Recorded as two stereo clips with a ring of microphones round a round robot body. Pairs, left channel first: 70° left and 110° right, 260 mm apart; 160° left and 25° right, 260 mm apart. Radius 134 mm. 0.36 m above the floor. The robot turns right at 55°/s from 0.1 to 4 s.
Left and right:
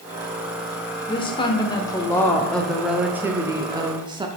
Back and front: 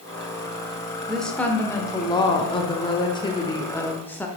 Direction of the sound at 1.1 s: 65° left.